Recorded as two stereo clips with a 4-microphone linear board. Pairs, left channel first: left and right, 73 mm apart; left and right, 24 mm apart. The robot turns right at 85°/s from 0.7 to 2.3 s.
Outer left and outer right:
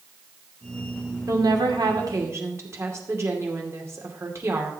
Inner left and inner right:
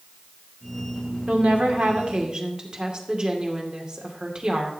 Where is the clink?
I don't hear a clink.